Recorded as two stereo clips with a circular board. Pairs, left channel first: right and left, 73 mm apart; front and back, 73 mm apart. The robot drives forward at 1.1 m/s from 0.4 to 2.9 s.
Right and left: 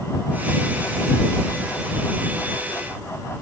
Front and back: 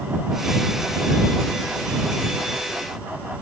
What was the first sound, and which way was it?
Only background noise.